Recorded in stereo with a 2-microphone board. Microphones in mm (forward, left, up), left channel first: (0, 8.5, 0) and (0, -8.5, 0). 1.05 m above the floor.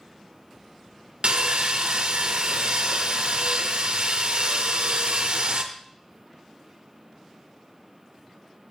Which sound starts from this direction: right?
Sawing, at 1.2 s.